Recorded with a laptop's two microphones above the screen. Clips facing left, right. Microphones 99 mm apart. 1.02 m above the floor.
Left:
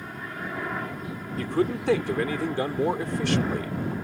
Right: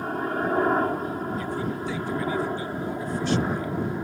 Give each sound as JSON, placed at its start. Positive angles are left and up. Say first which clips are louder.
{"t": 0.0, "sound": "a helicopter", "louder": "right 9 dB", "side_deg": -45}
{"t": 1.4, "sound": "a man speaking", "louder": "left 3 dB", "side_deg": 80}